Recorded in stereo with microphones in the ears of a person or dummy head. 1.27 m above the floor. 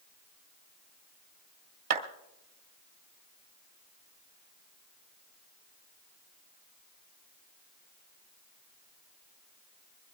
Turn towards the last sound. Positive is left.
turn(degrees=-50)  # may be behind; listen again after turning